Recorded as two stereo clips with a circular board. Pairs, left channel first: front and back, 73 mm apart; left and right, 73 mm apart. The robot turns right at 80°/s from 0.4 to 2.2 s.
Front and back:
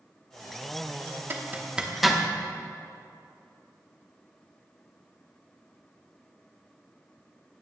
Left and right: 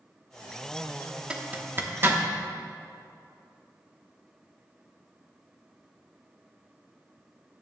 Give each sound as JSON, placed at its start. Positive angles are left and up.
{"t": 1.3, "sound": "a zipper", "azimuth_deg": -155, "distance_m": 0.9}